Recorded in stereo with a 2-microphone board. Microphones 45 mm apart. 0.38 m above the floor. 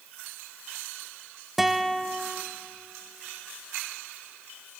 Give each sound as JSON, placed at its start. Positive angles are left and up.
{"t": 1.6, "sound": "a guitar", "side_deg": -5, "distance_m": 0.6}